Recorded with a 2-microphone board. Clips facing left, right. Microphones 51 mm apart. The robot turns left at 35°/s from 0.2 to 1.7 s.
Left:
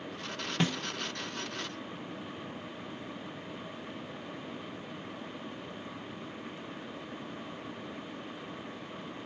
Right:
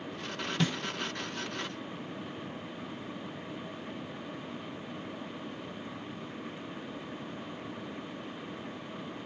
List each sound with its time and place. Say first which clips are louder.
0.6 s a snare drum: left 1 dB; 25° left (ahead or behind), 0.8 m